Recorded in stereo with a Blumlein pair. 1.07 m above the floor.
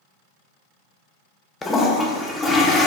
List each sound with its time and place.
1.6 s a toilet flushing: 15° left, 0.6 m